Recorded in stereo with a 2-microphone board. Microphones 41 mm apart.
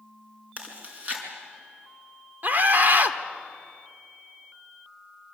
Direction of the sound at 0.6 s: 40° right (ahead or behind).